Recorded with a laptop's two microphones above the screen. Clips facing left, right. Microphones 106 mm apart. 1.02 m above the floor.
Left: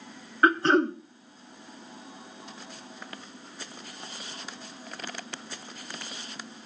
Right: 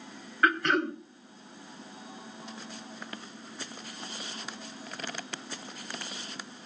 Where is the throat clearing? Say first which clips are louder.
Left 5 dB; 30° left (ahead or behind), 0.8 m.